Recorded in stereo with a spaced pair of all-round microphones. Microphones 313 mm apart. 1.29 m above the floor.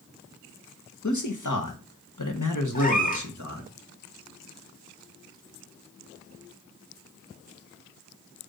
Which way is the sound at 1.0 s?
65° left (ahead or behind).